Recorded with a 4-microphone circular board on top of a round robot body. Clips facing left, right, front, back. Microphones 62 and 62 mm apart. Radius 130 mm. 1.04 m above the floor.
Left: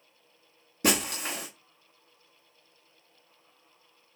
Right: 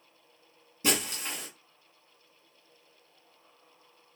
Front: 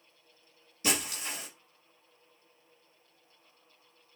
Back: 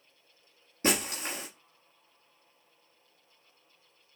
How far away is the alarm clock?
I don't hear an alarm clock.